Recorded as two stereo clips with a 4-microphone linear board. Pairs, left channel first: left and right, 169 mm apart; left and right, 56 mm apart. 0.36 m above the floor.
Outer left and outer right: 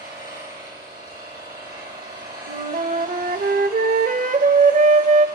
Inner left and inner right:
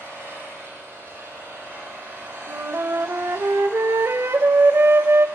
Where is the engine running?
75° right (ahead or behind), 9 m.